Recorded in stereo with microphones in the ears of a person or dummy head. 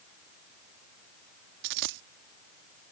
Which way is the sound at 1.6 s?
55° right (ahead or behind).